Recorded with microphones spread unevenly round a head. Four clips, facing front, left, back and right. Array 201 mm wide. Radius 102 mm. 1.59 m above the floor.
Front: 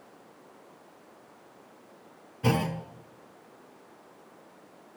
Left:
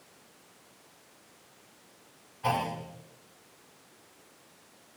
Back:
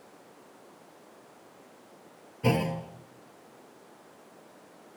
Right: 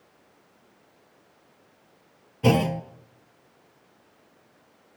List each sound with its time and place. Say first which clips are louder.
2.4 s a clunk: right 8 dB, even; 105° right, 0.9 m